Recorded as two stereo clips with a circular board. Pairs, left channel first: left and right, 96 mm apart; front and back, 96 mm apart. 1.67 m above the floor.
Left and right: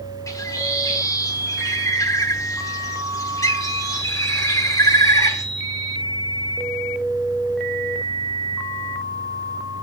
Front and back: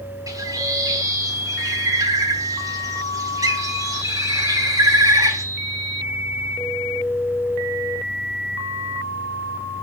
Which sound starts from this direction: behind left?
A bird, at 0.3 s.